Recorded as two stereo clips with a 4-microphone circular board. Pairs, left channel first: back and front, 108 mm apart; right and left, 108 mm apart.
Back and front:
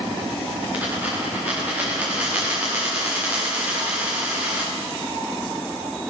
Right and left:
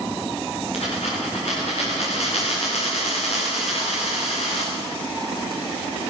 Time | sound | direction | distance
0.7 | a dropped coin | 75° right | 7 m